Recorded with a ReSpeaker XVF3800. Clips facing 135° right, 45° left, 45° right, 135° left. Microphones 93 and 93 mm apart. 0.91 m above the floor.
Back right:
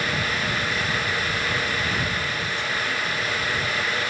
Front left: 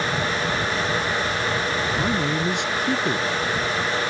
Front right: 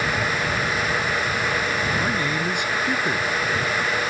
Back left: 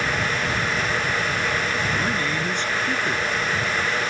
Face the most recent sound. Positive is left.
turn(degrees=35)